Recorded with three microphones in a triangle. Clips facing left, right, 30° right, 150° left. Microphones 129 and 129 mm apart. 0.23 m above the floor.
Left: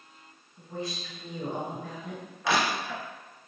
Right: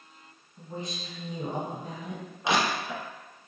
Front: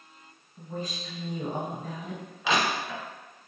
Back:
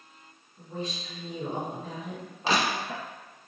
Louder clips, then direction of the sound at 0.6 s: Left 2 dB, even; 30° right.